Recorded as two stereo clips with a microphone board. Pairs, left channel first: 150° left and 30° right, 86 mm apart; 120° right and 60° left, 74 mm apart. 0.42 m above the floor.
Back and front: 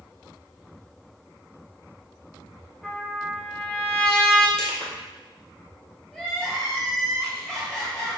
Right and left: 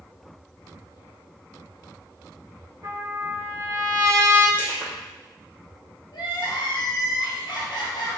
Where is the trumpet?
70° left, 2.5 m.